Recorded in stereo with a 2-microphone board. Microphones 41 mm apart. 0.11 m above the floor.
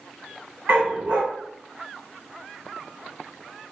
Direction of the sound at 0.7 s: 55° right (ahead or behind).